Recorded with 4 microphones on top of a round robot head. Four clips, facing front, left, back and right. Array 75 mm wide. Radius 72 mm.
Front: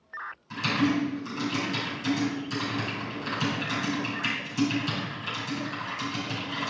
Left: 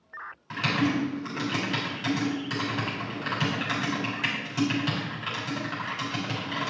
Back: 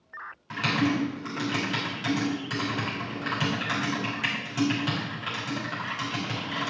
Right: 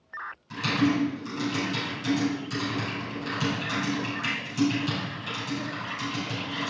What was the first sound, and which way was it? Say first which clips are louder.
Typing on a keyboard: right 1 dB, even; 140° left.